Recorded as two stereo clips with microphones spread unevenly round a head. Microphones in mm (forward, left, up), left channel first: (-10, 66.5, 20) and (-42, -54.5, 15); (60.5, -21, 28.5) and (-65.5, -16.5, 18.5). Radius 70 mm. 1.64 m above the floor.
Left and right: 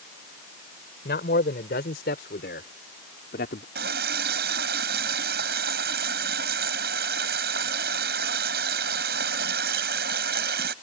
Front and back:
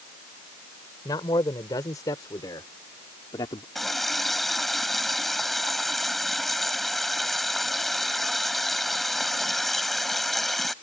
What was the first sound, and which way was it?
A man speaking, 65° left.